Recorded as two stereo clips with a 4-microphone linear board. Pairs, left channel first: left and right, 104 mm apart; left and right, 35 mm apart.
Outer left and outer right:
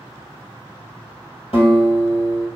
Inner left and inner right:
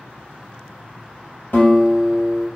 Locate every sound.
1.5 s a guitar: 60° left (ahead or behind), 1.8 m